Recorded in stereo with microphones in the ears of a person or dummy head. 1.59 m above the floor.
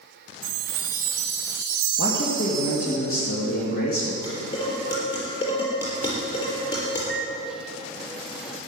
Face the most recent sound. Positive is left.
turn(degrees=0)  # may be behind; listen again after turning